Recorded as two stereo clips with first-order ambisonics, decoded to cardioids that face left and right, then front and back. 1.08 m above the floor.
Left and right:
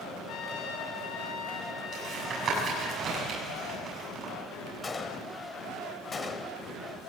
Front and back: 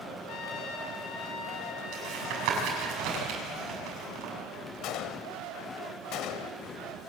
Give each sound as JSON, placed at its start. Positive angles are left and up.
{"t": 0.3, "sound": "a trumpet", "azimuth_deg": 45, "distance_m": 3.5}
{"t": 1.9, "sound": "tapping", "azimuth_deg": -150, "distance_m": 7.5}
{"t": 4.8, "sound": "a gunshot", "azimuth_deg": 20, "distance_m": 1.3}